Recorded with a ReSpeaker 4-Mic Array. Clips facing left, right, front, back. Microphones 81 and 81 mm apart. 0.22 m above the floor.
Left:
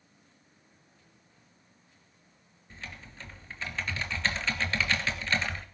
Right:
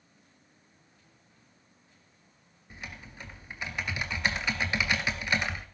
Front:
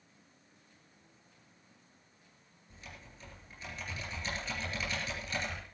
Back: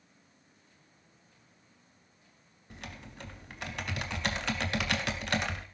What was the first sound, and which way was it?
Typing on a keyboard, 165° right.